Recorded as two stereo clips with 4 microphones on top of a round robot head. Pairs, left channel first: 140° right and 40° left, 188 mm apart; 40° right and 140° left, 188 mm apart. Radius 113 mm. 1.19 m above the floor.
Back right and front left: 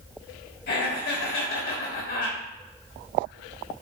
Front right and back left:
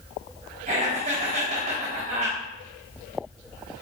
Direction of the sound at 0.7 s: 170° right.